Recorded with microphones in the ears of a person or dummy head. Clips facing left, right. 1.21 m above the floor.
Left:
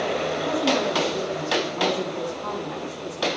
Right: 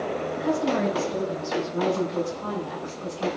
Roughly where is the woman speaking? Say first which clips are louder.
Right 1 dB; right.